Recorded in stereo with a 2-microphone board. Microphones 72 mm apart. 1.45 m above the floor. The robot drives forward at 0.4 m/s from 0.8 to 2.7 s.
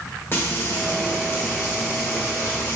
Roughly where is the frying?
Left.